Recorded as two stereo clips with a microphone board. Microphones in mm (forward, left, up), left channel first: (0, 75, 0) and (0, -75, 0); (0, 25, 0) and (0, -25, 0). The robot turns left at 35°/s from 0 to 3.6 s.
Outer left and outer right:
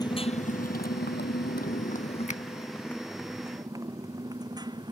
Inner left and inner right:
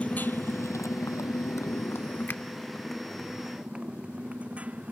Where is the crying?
No crying in this recording.